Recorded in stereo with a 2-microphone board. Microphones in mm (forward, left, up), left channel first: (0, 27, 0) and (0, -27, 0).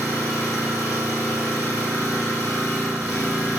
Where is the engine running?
75° right (ahead or behind), 1.5 m.